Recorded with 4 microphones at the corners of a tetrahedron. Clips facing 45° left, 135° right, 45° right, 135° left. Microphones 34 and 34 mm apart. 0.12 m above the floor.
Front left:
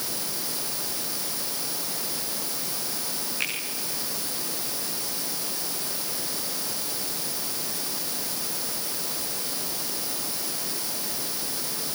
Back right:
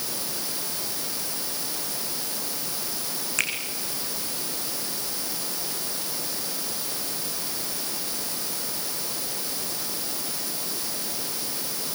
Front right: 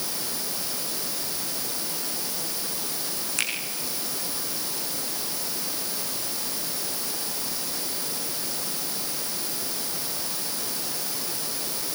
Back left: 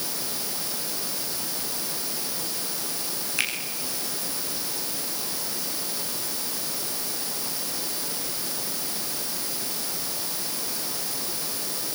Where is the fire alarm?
No fire alarm in this recording.